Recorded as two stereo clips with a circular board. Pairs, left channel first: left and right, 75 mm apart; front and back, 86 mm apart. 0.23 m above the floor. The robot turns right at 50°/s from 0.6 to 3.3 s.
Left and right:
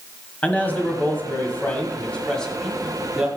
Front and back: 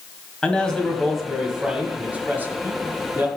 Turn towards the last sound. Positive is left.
turn(degrees=-160)